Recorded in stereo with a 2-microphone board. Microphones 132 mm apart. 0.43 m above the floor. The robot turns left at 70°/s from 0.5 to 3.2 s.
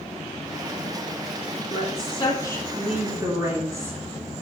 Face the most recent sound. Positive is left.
turn(degrees=-25)